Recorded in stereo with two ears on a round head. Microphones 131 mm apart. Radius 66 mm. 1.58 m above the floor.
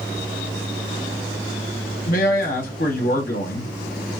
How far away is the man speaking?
About 0.8 m.